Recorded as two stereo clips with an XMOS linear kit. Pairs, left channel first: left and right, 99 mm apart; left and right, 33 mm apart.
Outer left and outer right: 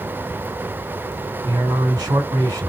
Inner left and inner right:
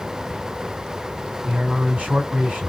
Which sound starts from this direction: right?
A man speaking, at 1.4 s.